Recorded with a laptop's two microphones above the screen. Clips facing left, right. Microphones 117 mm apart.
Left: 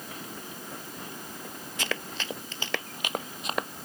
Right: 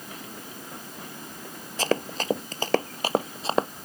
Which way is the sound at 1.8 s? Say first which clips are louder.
Right 9 dB; 35° right (ahead or behind).